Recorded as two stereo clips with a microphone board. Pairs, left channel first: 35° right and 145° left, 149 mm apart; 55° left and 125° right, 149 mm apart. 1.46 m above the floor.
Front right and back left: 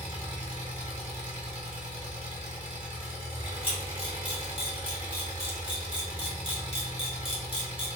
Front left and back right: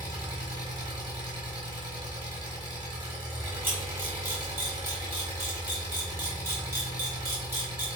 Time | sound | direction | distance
0.0 | an engine running | 175° left | 1.4 m
3.6 | a camera shutter | 60° right | 1.4 m